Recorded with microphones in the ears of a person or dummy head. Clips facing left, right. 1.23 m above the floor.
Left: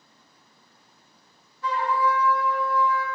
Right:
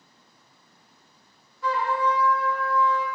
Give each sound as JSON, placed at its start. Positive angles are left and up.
{"t": 1.6, "sound": "a trumpet", "side_deg": -55, "distance_m": 1.4}